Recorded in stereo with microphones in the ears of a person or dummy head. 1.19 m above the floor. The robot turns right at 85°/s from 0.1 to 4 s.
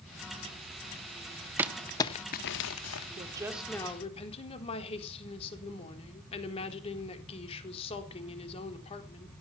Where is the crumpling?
15° right (ahead or behind), 1.5 m; by 3.1 s 65° left (ahead or behind), 1.5 m.